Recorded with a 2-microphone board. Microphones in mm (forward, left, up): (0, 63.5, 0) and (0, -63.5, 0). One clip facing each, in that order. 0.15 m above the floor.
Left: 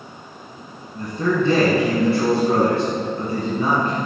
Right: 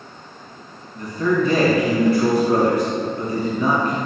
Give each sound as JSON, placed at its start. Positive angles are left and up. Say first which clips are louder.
{"t": 0.9, "sound": "a man speaking", "louder": "right 1 dB", "side_deg": 30, "distance_m": 1.6}